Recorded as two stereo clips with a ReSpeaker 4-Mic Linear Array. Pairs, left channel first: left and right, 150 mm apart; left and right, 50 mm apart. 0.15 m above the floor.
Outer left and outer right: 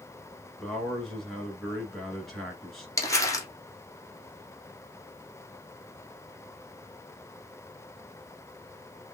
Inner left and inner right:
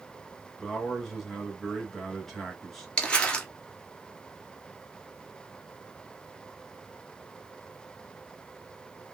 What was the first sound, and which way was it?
A man speaking, centre (ahead or behind).